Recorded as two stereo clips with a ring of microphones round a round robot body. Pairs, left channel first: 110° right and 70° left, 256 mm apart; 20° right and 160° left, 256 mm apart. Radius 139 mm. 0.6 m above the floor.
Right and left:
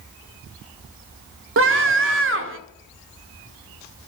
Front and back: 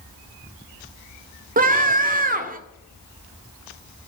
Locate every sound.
1.6 s a scream: 100° left, 1.5 m